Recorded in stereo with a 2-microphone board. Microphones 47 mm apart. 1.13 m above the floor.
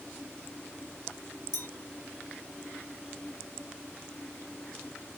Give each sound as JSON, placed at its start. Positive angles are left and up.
{"t": 1.5, "sound": "a clink", "side_deg": 70, "distance_m": 1.1}